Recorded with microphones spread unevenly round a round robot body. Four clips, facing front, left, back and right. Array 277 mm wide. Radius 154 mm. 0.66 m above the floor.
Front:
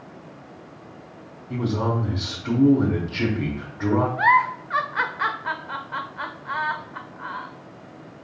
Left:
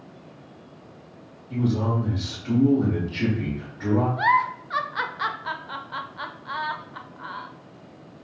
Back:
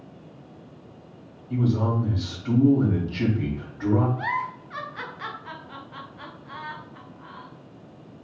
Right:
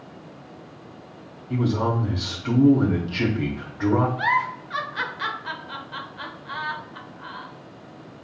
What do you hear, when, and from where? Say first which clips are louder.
1.5 s a man speaking: right 1 dB, even; 55° right, 1.3 m
4.2 s a giggle: left 2 dB, front 10 dB; 20° left, 0.7 m